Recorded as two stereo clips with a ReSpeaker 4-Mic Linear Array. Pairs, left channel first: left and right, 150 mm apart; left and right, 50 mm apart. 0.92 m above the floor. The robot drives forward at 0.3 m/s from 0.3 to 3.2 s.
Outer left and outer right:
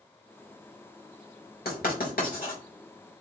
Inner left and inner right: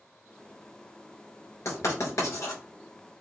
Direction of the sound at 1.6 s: 70° left (ahead or behind).